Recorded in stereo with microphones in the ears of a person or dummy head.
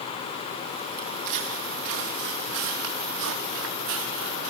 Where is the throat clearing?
No throat clearing in this recording.